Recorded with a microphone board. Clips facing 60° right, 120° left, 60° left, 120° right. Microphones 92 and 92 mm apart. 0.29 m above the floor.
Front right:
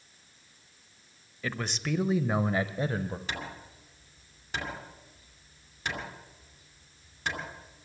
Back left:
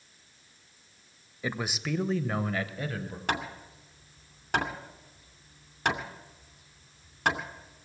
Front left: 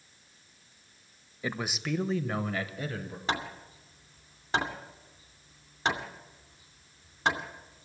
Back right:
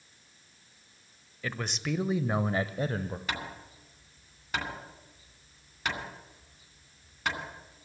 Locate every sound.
1.4 s a man speaking: 85° left, 0.9 m; by 3.2 s 100° right, 1.2 m
3.3 s hammering: 115° left, 2.5 m